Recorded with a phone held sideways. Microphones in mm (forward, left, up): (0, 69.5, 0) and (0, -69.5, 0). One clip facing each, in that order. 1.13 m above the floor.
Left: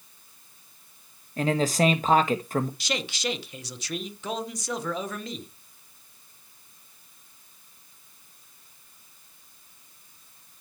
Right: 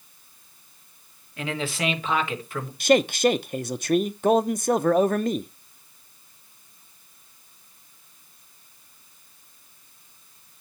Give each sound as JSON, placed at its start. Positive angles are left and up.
{"t": 1.4, "sound": "a man speaking", "side_deg": 40, "distance_m": 1.3}
{"t": 2.8, "sound": "a man speaking", "side_deg": -55, "distance_m": 0.7}